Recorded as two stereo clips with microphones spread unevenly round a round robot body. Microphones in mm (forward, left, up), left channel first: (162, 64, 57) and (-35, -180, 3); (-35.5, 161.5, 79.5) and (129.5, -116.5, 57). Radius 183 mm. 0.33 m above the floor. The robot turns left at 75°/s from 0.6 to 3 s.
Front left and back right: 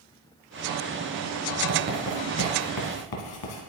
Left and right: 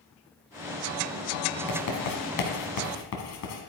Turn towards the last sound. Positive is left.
turn(degrees=80)